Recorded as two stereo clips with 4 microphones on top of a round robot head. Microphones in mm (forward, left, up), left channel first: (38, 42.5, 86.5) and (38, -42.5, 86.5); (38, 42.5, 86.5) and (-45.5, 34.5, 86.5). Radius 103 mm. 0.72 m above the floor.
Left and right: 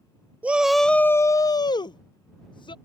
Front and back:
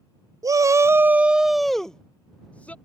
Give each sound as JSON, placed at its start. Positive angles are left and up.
{"t": 0.4, "sound": "a shout", "azimuth_deg": -155}